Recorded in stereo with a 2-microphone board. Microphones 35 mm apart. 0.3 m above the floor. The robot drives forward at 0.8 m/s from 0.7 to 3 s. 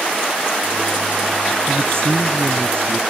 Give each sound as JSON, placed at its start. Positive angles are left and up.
{"t": 1.7, "sound": "a man speaking", "side_deg": -85}